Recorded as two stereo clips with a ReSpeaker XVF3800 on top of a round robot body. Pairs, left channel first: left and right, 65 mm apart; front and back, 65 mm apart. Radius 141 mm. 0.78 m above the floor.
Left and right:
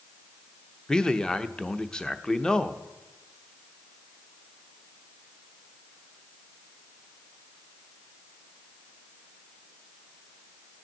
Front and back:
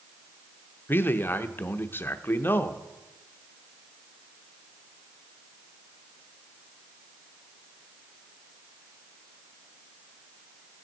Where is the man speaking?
20° left, 0.9 m.